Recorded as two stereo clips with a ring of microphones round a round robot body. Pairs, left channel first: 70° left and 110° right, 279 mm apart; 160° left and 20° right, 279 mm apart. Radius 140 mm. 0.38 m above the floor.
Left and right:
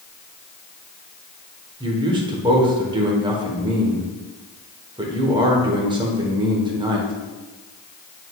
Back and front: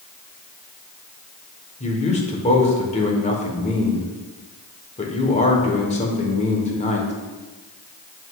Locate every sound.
1.8 s a man speaking: 165° right, 1.1 m